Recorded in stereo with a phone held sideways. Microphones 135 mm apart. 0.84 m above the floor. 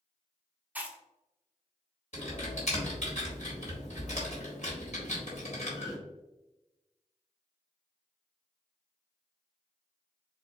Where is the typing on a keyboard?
60° left (ahead or behind), 1.9 m.